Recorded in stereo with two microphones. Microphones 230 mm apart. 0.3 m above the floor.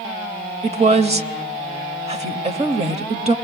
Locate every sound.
0.6 s a woman speaking: 30° right (ahead or behind), 0.9 m